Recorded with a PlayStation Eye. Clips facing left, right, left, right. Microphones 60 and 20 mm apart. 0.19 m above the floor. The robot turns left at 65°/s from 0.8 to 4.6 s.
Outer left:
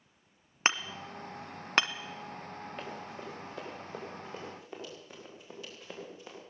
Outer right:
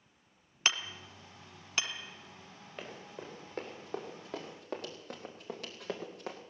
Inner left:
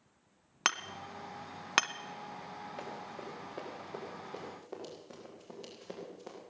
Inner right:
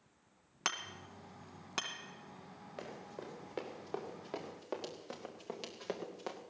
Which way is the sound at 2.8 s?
5° right (ahead or behind).